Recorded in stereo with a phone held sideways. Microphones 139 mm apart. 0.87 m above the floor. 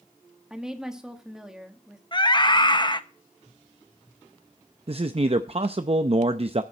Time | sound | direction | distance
0.5 | a woman speaking | 5° right (ahead or behind) | 1.8 m
2.1 | a scream | 35° left (ahead or behind) | 0.9 m
4.9 | a man speaking | 45° right (ahead or behind) | 0.5 m